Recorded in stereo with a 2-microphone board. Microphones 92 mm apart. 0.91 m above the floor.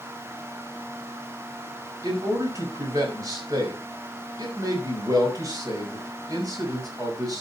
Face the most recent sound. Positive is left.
turn(degrees=-40)  # may be behind; listen again after turning